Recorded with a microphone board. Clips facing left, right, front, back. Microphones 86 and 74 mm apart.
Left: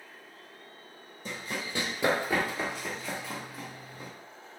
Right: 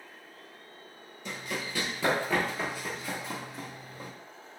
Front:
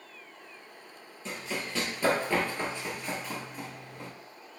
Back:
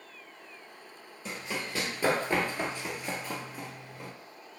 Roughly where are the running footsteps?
Behind left.